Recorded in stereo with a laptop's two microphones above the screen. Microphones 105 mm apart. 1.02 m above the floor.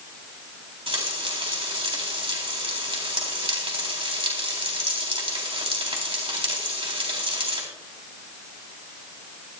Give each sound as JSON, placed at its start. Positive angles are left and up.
{"t": 0.9, "sound": "frying", "side_deg": -55, "distance_m": 3.5}